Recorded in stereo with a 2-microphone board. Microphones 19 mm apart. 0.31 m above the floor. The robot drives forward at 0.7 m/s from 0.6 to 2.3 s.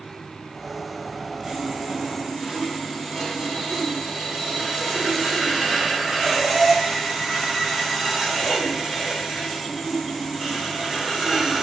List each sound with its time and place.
1.4 s sawing: 25° right (ahead or behind), 0.6 m; by 11.6 s 15° right (ahead or behind), 1.1 m